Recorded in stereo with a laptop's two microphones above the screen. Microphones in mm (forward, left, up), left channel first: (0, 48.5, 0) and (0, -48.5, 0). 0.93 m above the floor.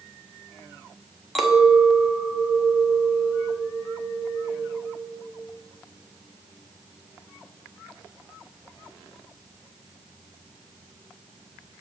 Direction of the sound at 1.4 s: Centre (ahead or behind).